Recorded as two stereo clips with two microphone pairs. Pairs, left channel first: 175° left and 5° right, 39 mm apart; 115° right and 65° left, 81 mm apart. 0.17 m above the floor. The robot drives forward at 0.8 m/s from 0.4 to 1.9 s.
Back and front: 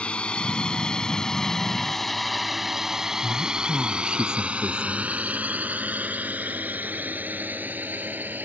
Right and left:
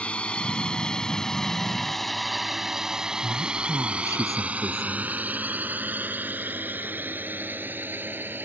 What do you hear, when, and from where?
0.0 s a drone: 175° right; by 8.5 s 5° left
3.2 s a woman speaking: 45° left